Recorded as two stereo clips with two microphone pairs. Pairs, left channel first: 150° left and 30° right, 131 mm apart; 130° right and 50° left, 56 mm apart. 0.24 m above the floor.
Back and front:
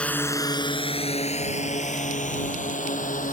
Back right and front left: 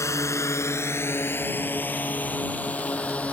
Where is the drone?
130° right; by 3.3 s 165° left.